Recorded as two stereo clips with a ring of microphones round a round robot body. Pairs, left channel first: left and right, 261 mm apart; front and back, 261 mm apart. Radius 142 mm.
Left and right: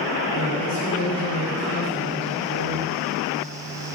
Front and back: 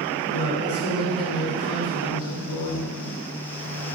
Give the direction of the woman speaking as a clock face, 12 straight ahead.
11 o'clock.